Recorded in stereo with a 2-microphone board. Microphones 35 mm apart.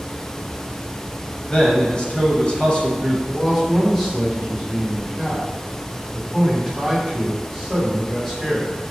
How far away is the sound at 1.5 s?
About 1.0 m.